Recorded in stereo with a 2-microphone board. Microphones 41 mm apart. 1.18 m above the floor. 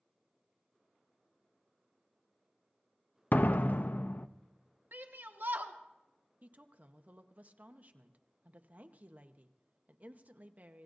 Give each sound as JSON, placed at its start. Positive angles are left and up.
{"t": 3.3, "sound": "a door slam", "side_deg": 50, "distance_m": 0.5}
{"t": 4.9, "sound": "a shout", "side_deg": -60, "distance_m": 1.3}
{"t": 6.4, "sound": "a woman speaking", "side_deg": -40, "distance_m": 0.9}